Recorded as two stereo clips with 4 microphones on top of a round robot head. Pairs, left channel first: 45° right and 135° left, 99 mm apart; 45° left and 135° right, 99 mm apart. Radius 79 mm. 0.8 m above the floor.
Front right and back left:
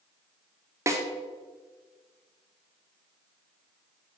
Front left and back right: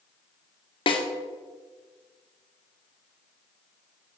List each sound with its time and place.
0.9 s a snare drum: 75° left, 2.5 m